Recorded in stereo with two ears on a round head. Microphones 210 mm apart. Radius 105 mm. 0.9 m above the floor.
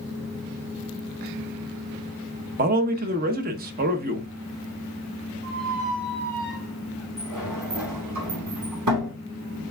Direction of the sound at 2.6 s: 40° right (ahead or behind).